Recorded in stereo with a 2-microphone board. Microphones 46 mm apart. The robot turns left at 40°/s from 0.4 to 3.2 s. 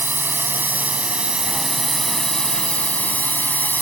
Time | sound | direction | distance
0.0 | a drone | 120° right | ?